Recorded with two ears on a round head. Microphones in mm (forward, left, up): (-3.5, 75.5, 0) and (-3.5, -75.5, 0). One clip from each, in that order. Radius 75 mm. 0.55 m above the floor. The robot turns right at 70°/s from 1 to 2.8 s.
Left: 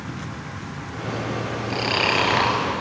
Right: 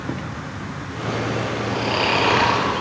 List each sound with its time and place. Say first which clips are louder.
1.7 s snoring: even; 120° left, 1.9 m; by 2.6 s 170° right, 1.9 m